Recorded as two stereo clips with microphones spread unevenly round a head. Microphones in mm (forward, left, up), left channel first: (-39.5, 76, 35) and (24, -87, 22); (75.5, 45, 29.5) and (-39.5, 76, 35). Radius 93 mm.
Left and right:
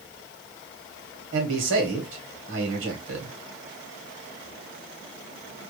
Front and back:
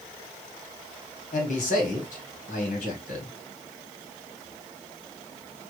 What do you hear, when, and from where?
1.3 s a man speaking: 50° right, 1.8 m